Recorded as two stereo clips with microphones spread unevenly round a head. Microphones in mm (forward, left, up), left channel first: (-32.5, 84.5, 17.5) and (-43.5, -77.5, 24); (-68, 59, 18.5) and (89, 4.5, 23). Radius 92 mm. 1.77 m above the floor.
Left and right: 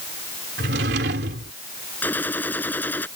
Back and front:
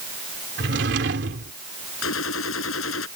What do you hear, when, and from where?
0.6 s a drawer: 55° right
2.0 s a gunshot: 165° left